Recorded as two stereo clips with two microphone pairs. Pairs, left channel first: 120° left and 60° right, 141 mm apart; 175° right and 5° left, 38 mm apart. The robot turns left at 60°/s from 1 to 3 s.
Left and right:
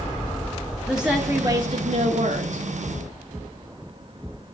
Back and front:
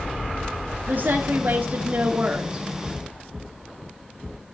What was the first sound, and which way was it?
A woman speaking, 25° left.